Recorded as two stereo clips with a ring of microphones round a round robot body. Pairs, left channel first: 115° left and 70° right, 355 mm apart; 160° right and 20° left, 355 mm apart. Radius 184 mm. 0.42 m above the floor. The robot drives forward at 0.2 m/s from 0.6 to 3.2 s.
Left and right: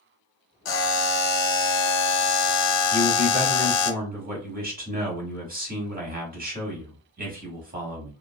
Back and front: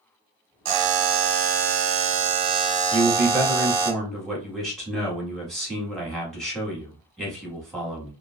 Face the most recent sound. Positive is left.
turn(degrees=-70)